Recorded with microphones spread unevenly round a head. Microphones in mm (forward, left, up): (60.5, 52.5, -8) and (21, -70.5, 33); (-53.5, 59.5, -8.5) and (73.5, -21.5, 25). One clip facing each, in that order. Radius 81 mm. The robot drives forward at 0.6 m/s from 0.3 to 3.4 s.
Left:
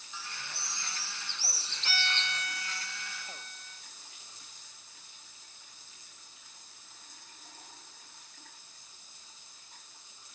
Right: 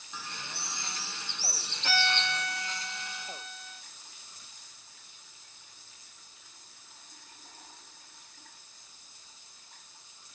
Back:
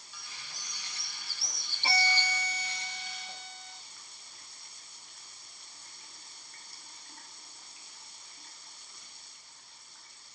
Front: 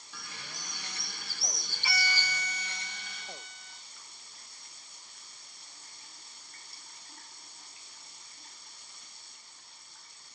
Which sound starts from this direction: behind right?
A violin, at 1.8 s.